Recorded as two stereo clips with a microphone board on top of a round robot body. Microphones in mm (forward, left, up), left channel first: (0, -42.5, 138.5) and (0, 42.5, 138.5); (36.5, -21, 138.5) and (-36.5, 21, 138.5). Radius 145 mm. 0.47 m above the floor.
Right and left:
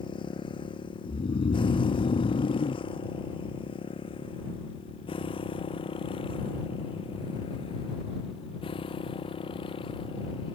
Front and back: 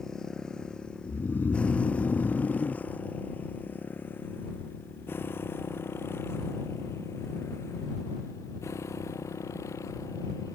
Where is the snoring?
100° right.